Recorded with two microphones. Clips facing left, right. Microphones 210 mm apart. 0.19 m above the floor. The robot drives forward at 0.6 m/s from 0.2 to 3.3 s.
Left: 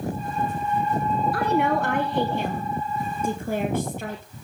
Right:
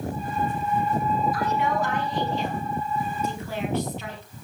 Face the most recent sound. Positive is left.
turn(degrees=50)  # may be behind; listen again after turning